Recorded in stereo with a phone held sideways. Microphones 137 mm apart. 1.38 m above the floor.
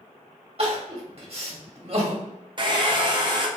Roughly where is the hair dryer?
Right.